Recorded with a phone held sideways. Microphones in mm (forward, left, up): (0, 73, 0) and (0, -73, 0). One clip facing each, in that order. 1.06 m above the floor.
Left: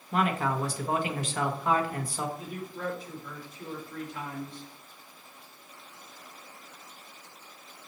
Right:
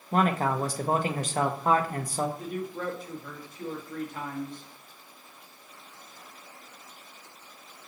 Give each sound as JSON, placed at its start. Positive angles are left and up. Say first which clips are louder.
{"t": 0.1, "sound": "a man speaking", "louder": "right 3 dB", "side_deg": -40, "distance_m": 0.6}
{"t": 2.4, "sound": "a man speaking", "louder": "right 3 dB", "side_deg": -45, "distance_m": 1.4}